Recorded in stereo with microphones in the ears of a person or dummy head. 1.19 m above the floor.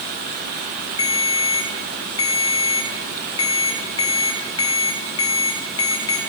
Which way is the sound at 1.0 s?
25° left (ahead or behind).